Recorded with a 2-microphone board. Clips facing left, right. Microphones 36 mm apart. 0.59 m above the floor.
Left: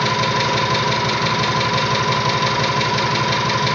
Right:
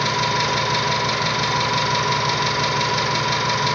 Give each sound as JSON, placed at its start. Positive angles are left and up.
{"t": 0.0, "sound": "an engine running", "side_deg": 10, "distance_m": 2.5}